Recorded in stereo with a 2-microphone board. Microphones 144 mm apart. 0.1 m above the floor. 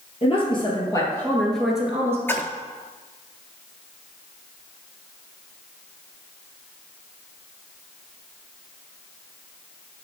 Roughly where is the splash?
Centre.